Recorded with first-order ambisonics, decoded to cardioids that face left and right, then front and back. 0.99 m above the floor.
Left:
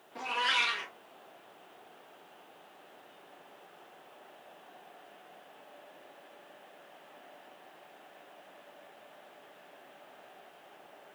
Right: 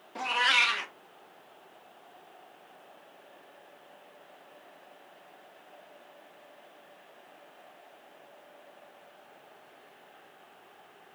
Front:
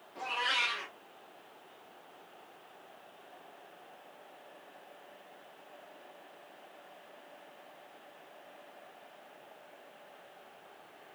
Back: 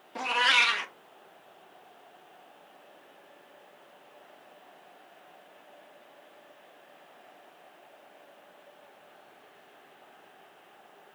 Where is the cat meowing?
155° right, 0.6 m.